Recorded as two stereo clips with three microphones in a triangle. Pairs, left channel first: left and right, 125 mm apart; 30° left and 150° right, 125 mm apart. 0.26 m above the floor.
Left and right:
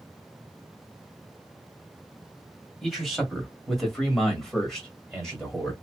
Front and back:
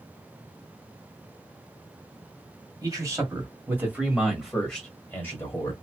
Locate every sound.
2.8 s a man speaking: straight behind, 1.6 m; by 5.7 s 10° left, 1.5 m